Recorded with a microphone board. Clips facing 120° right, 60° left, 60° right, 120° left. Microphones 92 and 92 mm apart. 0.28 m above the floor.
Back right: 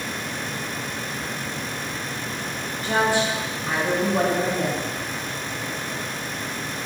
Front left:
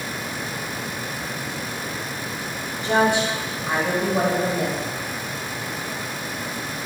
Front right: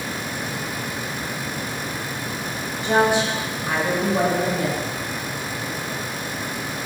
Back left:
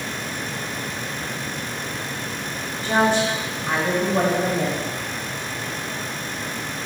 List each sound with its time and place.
2.8 s a woman speaking: 5° left, 1.7 m; by 4.8 s 145° left, 1.4 m